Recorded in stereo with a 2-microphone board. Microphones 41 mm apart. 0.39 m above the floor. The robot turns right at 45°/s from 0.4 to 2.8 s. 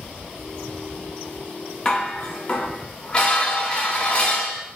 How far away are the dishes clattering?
About 0.5 m.